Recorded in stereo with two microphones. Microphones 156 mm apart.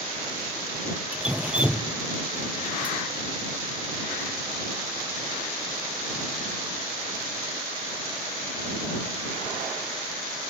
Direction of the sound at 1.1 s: 10° right (ahead or behind).